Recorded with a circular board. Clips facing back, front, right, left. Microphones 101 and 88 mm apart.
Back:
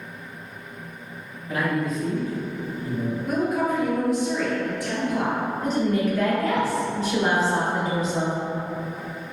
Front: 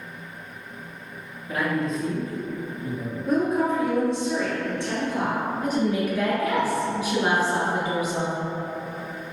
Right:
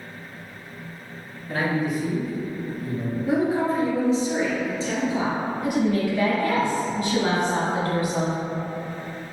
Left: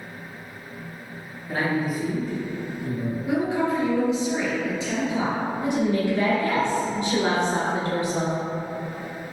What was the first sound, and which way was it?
A man speaking, 15° left.